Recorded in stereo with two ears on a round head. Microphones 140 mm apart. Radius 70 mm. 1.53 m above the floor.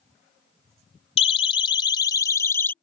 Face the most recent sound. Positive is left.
turn(degrees=15)  # may be behind; listen again after turning